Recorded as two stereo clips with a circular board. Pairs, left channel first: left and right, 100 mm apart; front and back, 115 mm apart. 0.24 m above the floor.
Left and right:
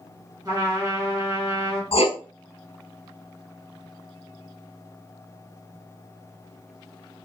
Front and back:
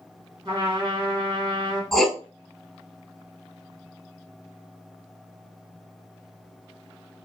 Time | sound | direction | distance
0.5 | a trumpet | 130° right | 2.0 m
1.9 | writing | 90° left | 0.6 m